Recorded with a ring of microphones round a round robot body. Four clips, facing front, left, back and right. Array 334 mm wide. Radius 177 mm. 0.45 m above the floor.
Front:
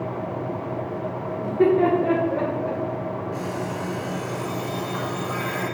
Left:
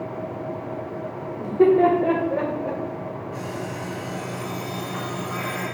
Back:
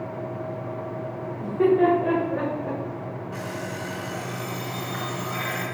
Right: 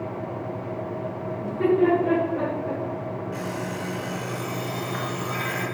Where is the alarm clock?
120° right, 3 m.